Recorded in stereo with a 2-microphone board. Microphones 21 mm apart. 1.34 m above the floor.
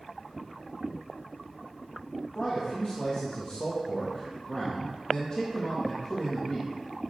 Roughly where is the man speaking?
Left.